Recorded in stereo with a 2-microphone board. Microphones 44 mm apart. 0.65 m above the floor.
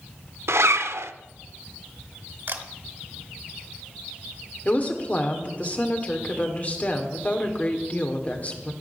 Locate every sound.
0.5 s a zipper: 85° right, 0.6 m
2.5 s a camera shutter: 60° right (ahead or behind), 1.6 m
4.7 s a woman speaking: 40° left (ahead or behind), 2.0 m